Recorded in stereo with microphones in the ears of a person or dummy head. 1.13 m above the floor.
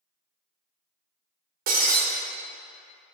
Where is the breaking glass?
40° right (ahead or behind), 1.1 m.